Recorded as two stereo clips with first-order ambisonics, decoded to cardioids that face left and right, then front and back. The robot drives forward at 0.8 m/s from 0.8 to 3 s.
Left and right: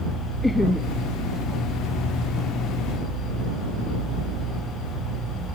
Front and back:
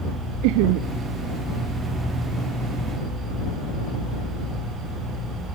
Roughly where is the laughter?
Behind.